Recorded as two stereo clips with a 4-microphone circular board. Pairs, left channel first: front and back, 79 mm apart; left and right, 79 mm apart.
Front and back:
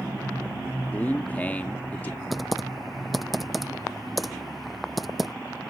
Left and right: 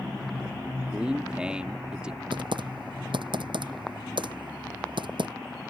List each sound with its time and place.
0.9 s a man speaking: 30° right
2.3 s typing on a keyboard: 90° right